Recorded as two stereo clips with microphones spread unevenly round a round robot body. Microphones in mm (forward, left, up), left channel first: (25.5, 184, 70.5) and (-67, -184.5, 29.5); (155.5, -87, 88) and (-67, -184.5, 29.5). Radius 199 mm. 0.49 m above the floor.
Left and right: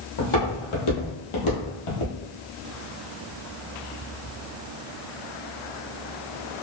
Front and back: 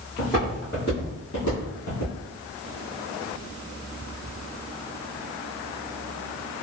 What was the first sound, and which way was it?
Footsteps, 100° left.